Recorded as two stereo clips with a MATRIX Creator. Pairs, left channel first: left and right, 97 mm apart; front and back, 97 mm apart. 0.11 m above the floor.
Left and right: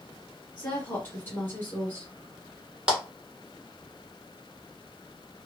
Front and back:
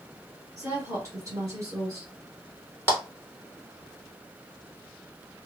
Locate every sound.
0.6 s a woman speaking: 150° left, 2.0 m
2.9 s a clap: 155° right, 1.1 m